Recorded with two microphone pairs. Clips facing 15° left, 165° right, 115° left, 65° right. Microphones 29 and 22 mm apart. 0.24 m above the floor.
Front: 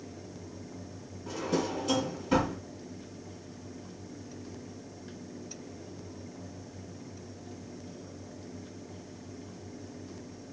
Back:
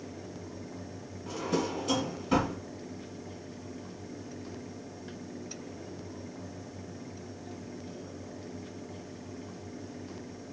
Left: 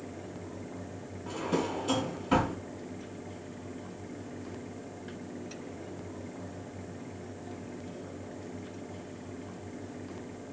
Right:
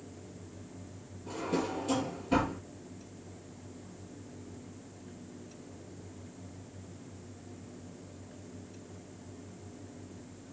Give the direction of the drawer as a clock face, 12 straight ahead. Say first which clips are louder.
Even, left 2 dB; 8 o'clock.